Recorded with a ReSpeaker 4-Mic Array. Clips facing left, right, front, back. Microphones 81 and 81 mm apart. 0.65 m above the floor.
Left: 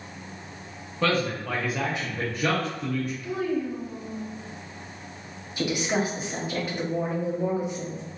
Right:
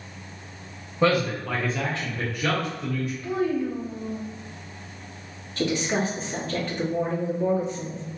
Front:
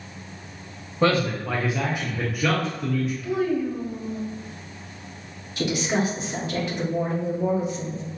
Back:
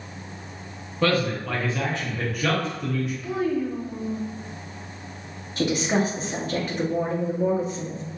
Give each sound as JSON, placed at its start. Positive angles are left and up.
{"t": 1.0, "sound": "a man speaking", "azimuth_deg": -40, "distance_m": 0.9}
{"t": 3.2, "sound": "a child speaking", "azimuth_deg": -130, "distance_m": 0.9}
{"t": 5.6, "sound": "a woman speaking", "azimuth_deg": 160, "distance_m": 1.0}